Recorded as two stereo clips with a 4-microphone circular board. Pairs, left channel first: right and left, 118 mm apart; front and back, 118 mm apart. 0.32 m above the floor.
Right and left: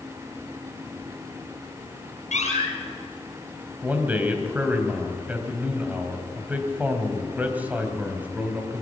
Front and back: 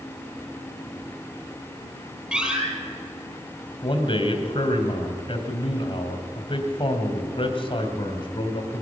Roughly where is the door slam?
Right.